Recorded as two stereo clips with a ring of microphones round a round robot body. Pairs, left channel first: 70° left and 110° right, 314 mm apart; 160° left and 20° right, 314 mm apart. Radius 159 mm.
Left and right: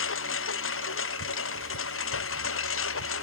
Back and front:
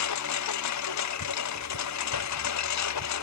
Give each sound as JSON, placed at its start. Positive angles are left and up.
{"t": 0.0, "sound": "a lawn mower", "azimuth_deg": 120}